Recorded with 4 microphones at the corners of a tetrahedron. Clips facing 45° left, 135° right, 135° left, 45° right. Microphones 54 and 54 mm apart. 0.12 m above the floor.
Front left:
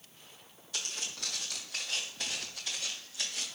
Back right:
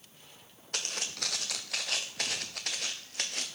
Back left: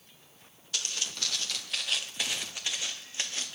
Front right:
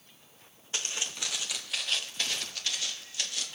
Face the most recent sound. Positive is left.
turn(degrees=-170)